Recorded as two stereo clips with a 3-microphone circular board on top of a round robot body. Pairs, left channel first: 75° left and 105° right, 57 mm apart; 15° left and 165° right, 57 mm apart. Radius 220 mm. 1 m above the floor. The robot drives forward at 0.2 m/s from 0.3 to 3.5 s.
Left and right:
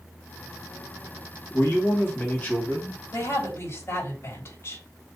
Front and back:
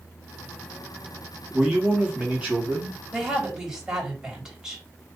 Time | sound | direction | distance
1.5 | a man speaking | 125° left | 2.5 m
3.1 | a woman speaking | 120° left | 3 m